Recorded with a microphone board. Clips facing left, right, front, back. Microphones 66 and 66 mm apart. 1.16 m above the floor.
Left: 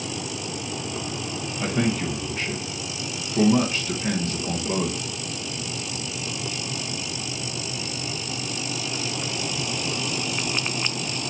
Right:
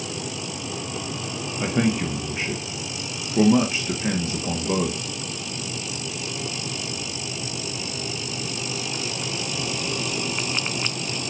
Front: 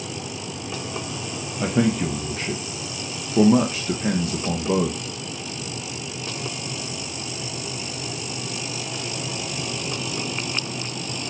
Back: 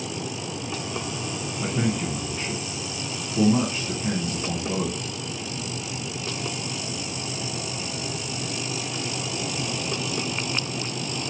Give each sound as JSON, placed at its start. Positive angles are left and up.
{"t": 1.6, "sound": "a man speaking", "azimuth_deg": -15, "distance_m": 0.8}